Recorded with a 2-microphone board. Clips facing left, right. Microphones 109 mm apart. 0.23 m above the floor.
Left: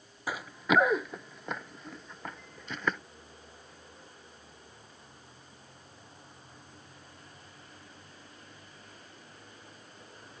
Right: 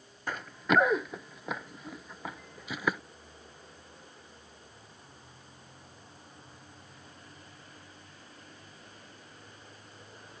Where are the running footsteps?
10° left (ahead or behind); by 3.0 s 10° right (ahead or behind).